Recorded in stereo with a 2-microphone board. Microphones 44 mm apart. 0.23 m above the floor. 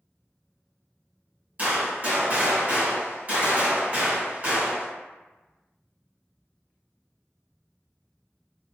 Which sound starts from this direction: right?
A gunshot, at 1.6 s.